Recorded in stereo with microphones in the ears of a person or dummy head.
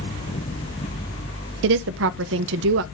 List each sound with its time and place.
1.6 s a woman speaking: 70° right (ahead or behind), 0.5 m